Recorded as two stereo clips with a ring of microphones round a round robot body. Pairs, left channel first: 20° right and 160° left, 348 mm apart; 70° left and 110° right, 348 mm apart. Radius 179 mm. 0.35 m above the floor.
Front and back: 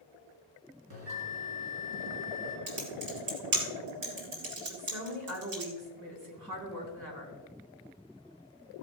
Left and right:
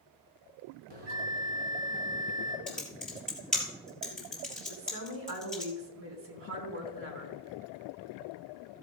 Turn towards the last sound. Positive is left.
turn(degrees=-165)